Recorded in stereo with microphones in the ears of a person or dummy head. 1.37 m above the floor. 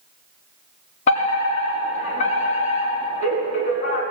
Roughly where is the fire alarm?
Left.